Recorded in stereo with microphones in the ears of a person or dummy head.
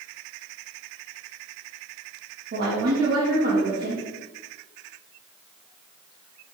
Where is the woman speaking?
45° right (ahead or behind), 0.6 m.